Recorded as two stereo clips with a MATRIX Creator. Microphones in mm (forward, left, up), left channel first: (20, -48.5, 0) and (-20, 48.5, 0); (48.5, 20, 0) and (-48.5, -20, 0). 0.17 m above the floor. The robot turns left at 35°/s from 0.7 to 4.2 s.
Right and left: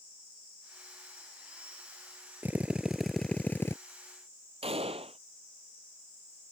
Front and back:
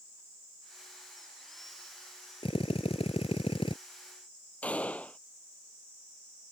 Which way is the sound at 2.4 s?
45° left.